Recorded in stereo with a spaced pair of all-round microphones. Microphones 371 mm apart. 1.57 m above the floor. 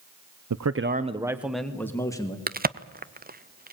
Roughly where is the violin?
I don't hear a violin.